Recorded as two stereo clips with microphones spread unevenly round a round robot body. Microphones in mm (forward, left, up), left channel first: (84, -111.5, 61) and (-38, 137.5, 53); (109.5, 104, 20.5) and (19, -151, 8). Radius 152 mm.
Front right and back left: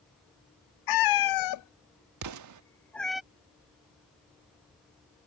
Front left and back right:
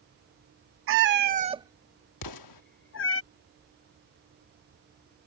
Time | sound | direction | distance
0.9 | a cat meowing | 65° right | ?
2.2 | an explosion | 95° left | ?